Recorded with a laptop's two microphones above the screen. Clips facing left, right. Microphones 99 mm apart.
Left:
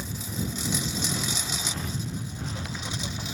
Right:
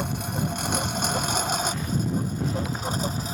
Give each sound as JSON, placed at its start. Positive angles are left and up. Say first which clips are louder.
{"t": 0.0, "sound": "a lawn mower", "louder": "right 5 dB", "side_deg": -65}